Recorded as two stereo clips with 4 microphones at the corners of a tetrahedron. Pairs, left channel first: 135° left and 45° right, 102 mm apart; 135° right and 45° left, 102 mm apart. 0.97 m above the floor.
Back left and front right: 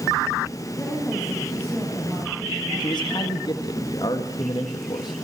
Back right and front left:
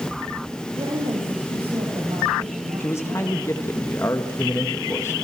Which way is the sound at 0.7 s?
65° left.